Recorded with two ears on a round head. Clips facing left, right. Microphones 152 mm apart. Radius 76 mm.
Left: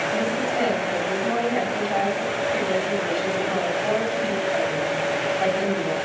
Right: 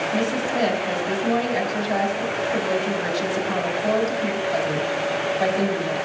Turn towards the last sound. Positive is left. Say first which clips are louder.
# right 1 dB
turn(degrees=-50)  # may be behind; listen again after turning